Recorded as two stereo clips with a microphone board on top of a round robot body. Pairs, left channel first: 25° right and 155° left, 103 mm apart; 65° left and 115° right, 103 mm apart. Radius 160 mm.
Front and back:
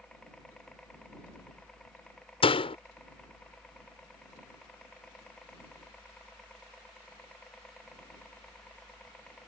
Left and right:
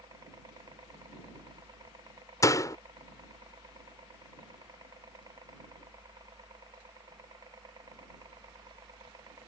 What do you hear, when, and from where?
0.0 s a helicopter: 100° right
2.4 s a door slam: 10° left